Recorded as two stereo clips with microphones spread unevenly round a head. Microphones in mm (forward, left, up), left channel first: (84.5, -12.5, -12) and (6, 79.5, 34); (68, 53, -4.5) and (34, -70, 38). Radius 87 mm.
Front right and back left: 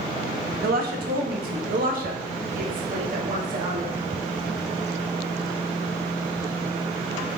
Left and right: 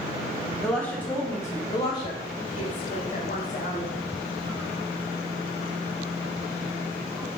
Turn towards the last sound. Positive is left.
turn(degrees=105)